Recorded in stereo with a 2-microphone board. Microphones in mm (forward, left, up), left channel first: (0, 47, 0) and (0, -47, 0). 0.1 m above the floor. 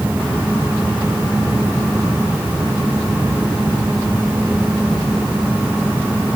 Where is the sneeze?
I don't hear a sneeze.